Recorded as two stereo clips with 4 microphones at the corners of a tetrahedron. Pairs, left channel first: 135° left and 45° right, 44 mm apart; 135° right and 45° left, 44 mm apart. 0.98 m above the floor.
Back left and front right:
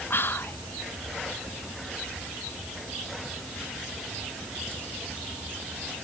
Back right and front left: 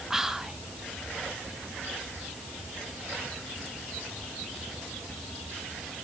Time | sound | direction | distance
0.1 | whispering | 125° left | 0.7 m